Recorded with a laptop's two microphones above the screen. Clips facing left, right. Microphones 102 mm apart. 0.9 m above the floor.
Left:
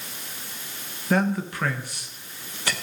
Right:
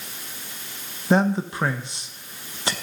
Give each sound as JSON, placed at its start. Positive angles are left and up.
{"t": 1.1, "sound": "a man speaking", "side_deg": -25, "distance_m": 0.9}